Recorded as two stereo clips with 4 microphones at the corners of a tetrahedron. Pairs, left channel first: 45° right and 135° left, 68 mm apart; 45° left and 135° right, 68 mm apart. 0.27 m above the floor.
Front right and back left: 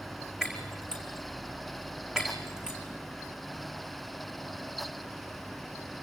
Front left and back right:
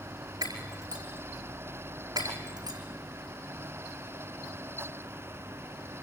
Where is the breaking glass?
145° right, 5 m.